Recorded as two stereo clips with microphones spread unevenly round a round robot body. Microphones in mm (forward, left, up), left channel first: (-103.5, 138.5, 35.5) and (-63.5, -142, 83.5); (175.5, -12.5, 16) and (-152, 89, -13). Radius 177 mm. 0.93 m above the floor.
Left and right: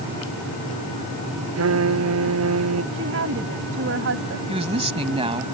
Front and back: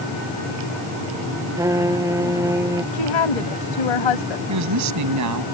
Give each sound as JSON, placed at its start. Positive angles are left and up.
{"t": 1.6, "sound": "a trumpet", "azimuth_deg": -115}
{"t": 2.9, "sound": "a woman speaking", "azimuth_deg": -25}
{"t": 4.5, "sound": "a woman speaking", "azimuth_deg": -150}